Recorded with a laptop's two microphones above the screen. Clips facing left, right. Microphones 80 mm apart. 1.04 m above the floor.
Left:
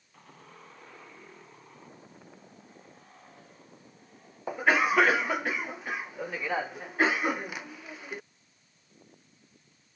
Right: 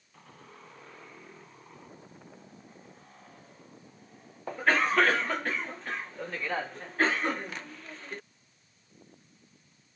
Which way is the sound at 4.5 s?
10° left (ahead or behind).